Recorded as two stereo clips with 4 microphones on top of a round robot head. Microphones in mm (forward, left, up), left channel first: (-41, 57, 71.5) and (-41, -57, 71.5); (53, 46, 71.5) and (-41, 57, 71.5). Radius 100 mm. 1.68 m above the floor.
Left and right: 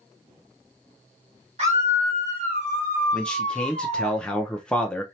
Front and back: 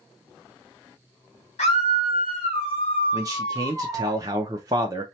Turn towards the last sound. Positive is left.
turn(degrees=165)